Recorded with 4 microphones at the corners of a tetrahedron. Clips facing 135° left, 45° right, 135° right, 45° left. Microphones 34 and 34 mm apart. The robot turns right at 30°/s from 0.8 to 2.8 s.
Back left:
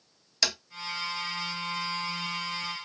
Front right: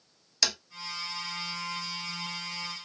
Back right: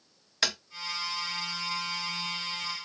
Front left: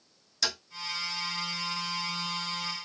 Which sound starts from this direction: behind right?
Tapping, at 0.4 s.